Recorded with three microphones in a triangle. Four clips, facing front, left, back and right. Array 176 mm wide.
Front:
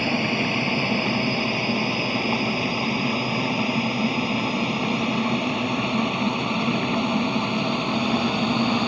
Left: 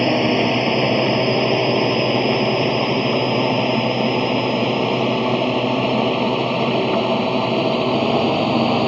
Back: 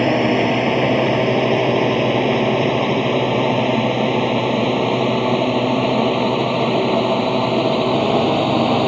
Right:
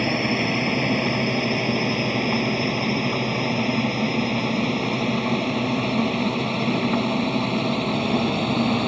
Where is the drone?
140° left; by 8.9 s 145° left.